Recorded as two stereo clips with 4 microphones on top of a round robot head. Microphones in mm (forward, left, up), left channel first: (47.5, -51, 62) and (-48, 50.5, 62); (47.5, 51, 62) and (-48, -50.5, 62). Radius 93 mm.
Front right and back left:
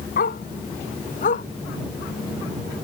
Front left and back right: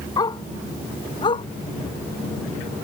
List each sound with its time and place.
0.2 s a dog barking: 20° right; by 1.4 s 10° right